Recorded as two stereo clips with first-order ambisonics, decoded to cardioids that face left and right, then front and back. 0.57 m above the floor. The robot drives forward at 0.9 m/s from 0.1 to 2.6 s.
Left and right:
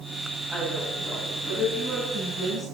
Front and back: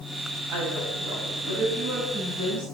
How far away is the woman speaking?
About 4.5 m.